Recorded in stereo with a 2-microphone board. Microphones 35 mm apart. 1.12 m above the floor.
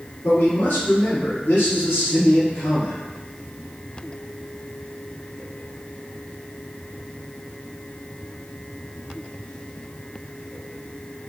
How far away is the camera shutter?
No camera shutter in this recording.